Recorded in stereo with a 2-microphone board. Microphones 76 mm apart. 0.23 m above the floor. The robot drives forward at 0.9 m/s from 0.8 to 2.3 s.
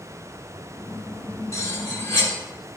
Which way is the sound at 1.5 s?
40° left (ahead or behind).